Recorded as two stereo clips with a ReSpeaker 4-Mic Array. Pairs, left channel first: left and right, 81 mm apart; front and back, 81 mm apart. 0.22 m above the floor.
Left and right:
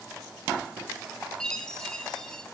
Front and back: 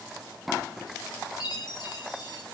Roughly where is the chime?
Ahead.